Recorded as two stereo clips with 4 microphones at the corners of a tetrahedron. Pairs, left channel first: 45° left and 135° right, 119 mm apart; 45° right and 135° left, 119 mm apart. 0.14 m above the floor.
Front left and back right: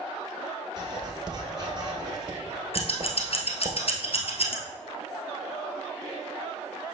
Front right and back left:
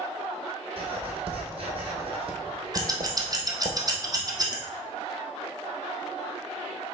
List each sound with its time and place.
0.8 s writing: 170° left, 1.8 m
2.7 s scissors: 80° left, 1.3 m